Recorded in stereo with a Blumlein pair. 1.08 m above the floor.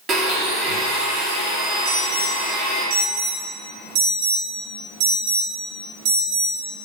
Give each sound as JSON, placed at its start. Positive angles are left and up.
{"t": 0.1, "sound": "a blender", "azimuth_deg": -25, "distance_m": 2.0}
{"t": 1.9, "sound": "an alarm", "azimuth_deg": -50, "distance_m": 2.0}